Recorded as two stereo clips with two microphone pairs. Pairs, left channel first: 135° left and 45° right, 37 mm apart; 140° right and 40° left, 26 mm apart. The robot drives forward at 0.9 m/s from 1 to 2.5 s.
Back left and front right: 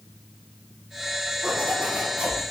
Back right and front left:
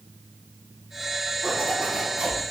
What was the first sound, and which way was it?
A zipper, straight ahead.